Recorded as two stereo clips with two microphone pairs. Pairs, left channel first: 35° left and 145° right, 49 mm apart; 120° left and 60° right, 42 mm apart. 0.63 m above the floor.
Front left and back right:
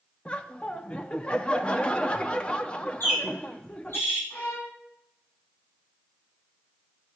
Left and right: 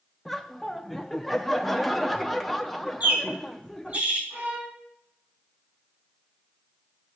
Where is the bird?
5° right, 4.5 m.